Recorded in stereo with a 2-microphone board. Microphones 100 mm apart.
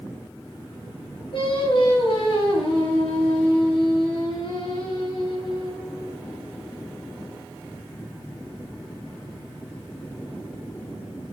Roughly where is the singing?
Left.